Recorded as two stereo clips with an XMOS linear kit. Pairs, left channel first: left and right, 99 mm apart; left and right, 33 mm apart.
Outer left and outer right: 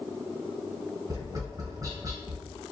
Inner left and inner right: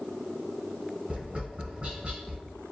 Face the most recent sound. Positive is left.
turn(degrees=-35)  # may be behind; listen again after turning